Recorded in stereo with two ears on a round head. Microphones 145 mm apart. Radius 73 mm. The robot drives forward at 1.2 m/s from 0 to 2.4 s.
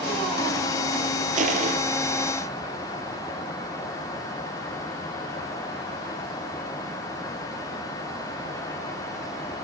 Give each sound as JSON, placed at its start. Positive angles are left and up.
{"t": 1.4, "sound": "crushing", "side_deg": -50, "distance_m": 6.0}